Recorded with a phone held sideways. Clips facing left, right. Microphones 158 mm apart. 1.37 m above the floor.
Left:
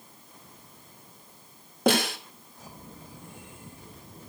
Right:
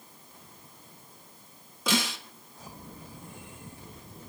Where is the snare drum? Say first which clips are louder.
Left 6 dB; 60° left (ahead or behind), 3.5 m.